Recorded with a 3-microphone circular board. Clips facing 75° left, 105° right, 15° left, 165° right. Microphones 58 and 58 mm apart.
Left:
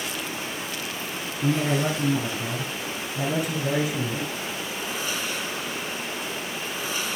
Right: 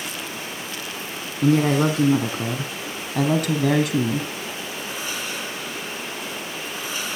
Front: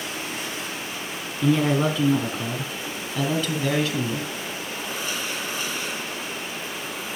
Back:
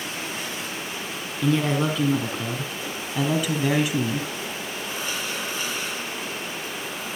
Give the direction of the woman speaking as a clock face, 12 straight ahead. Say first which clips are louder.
Right 6 dB, front 2 dB; 2 o'clock.